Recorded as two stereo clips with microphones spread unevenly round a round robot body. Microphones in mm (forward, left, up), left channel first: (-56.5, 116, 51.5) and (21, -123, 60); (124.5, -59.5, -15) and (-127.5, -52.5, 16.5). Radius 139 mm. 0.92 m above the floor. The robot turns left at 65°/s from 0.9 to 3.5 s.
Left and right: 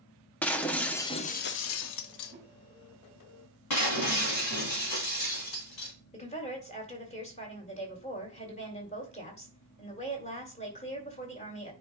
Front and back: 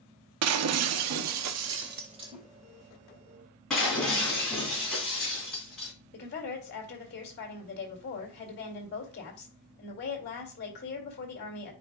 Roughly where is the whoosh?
Behind right.